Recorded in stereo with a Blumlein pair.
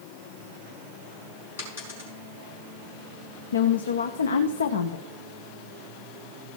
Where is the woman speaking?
70° left, 0.8 m.